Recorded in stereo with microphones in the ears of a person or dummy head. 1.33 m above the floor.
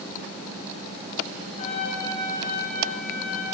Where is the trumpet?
35° left (ahead or behind), 5.5 m.